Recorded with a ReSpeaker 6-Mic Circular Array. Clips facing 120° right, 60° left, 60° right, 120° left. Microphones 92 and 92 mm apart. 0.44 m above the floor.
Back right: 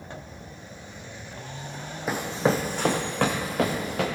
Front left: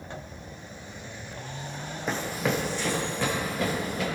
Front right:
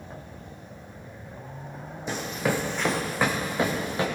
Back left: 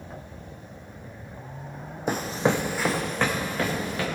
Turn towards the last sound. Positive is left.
turn(degrees=-125)